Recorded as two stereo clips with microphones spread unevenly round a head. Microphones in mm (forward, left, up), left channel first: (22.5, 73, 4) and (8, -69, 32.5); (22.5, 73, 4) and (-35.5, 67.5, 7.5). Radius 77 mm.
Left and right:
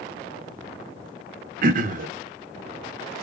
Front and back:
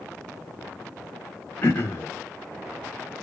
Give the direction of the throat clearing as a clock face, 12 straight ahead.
2 o'clock.